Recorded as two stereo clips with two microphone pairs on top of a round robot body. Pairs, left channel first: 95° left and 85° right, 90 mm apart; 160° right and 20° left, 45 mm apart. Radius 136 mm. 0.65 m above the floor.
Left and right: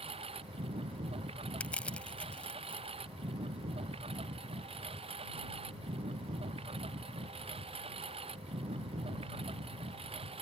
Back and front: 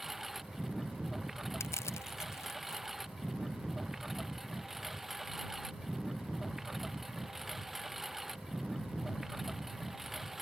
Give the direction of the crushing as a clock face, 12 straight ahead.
6 o'clock.